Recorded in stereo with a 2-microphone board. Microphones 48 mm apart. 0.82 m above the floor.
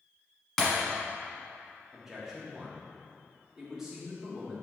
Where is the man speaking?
10° right (ahead or behind), 1.9 m.